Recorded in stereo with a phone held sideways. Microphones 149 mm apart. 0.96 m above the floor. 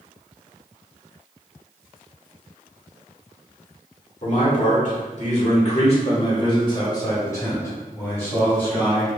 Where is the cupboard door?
No cupboard door in this recording.